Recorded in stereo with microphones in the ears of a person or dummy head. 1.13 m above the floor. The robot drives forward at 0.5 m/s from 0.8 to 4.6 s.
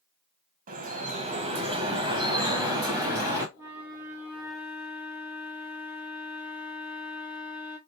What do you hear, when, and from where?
0.7 s dripping: 40° right (ahead or behind), 0.8 m; by 3.5 s 15° right (ahead or behind), 1.9 m
3.5 s a flute: 10° right (ahead or behind), 0.5 m; by 7.8 s 5° right (ahead or behind), 1.0 m